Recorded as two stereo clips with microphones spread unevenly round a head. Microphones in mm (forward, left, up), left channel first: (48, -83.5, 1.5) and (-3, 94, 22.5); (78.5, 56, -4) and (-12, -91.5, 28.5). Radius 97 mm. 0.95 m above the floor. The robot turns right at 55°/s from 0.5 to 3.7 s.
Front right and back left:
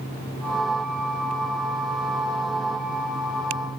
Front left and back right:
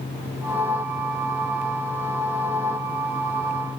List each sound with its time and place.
Only background noise.